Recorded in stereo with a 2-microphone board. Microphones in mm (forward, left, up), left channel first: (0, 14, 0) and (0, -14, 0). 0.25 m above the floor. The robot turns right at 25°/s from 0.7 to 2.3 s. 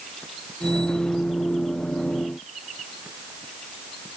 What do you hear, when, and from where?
Only background noise.